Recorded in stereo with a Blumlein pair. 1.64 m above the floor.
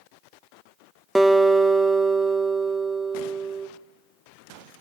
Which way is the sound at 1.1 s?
Straight ahead.